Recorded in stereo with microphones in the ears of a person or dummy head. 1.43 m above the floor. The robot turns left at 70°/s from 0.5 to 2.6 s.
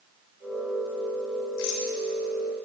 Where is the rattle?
70° left (ahead or behind), 3 m; by 1.9 s 75° left (ahead or behind), 3 m.